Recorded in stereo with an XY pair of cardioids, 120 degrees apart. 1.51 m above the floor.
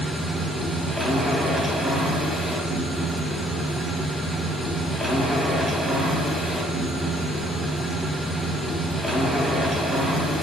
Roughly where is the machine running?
Ahead.